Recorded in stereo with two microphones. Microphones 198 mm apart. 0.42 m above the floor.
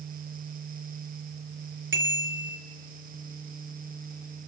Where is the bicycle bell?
75° right (ahead or behind), 5.5 m.